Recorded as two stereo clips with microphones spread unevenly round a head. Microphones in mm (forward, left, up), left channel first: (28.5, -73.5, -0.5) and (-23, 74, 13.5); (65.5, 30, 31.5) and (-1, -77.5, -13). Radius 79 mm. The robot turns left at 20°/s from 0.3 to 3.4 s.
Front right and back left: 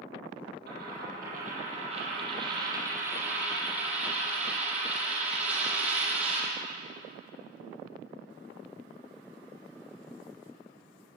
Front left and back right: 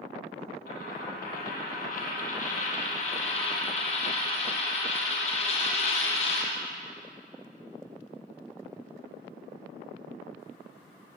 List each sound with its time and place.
0.7 s a dropped coin: 85° left, 8 m; by 6.5 s 30° left, 8 m